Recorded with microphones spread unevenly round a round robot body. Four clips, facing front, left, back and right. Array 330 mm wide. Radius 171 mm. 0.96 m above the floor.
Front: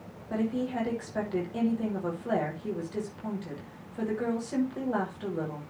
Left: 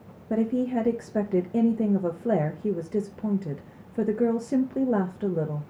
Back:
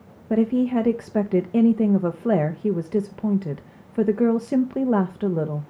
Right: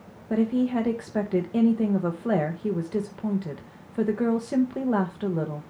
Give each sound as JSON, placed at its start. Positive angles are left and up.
{"t": 0.3, "sound": "a woman speaking", "azimuth_deg": 170, "distance_m": 1.1}